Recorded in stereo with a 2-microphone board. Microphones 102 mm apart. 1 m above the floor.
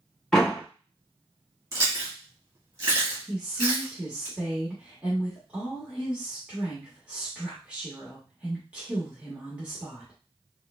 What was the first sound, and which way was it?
A door slam, 5° left (ahead or behind).